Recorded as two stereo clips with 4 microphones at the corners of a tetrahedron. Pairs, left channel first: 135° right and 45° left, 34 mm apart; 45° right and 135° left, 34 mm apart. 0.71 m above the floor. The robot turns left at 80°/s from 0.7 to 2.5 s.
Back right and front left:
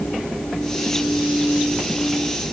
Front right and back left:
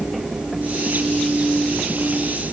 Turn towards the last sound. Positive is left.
No sound to turn to.